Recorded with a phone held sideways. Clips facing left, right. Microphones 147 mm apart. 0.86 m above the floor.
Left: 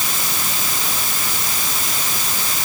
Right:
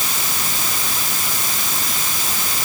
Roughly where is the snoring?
No snoring in this recording.